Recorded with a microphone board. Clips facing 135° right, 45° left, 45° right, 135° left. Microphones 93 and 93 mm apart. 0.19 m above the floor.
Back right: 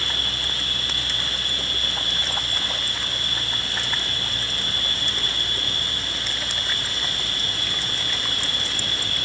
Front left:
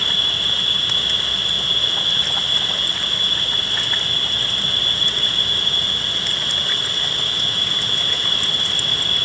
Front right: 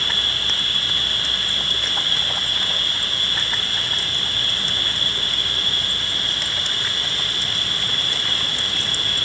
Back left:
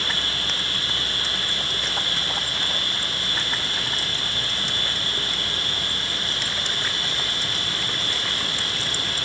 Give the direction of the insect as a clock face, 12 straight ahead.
10 o'clock.